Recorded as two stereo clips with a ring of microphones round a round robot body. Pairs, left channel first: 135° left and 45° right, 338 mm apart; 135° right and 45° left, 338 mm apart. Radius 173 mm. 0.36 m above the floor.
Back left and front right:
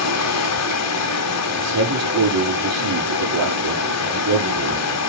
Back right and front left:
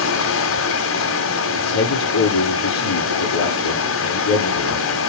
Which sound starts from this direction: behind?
Running water, at 0.0 s.